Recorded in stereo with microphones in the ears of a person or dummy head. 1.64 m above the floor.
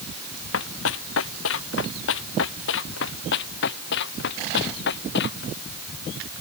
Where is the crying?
I don't hear crying.